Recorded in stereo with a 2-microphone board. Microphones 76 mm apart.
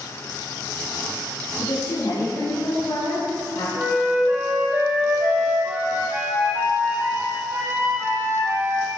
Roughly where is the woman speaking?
Left.